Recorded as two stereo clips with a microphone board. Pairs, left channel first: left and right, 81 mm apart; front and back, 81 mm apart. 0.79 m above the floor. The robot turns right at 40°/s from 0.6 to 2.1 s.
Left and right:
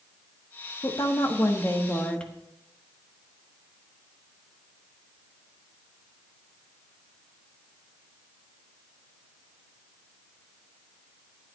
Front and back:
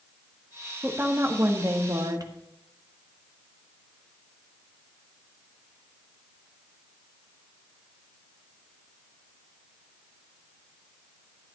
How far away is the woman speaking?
About 1.4 m.